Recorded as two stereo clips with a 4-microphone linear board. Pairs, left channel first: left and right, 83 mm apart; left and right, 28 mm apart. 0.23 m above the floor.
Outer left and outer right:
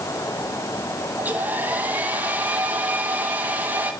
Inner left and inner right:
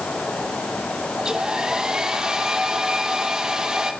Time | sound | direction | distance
1.2 | a hair dryer | 20° right (ahead or behind) | 2.5 m